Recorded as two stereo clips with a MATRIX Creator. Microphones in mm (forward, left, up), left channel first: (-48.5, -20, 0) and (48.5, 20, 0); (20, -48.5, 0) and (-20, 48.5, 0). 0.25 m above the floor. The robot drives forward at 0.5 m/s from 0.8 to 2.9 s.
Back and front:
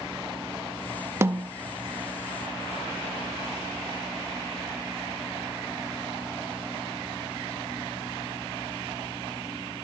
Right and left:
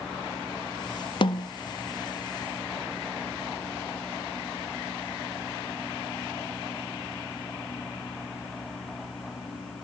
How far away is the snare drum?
About 0.5 m.